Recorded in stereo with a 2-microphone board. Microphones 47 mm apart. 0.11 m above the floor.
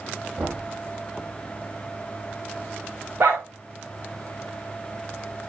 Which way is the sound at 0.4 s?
65° right (ahead or behind).